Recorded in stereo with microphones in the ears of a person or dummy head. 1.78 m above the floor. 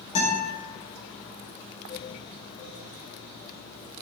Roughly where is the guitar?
Left.